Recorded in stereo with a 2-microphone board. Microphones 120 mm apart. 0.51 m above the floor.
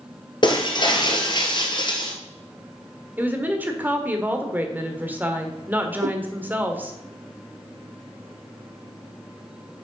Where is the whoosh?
85° right, 0.6 m.